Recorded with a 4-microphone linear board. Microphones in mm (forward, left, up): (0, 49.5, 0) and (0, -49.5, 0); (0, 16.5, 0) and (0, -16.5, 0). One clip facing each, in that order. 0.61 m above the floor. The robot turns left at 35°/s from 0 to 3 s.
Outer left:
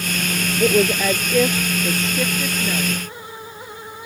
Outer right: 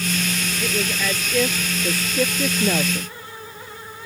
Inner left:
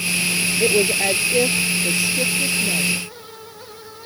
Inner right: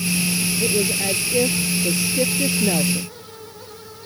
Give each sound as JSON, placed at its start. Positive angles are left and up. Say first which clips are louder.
{"t": 0.6, "sound": "a woman speaking", "louder": "outer left 10 dB, inner left 5 dB", "azimuth_deg": 45}